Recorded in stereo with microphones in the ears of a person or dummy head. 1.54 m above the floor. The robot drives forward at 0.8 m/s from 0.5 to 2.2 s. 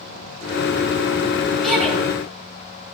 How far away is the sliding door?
I don't hear a sliding door.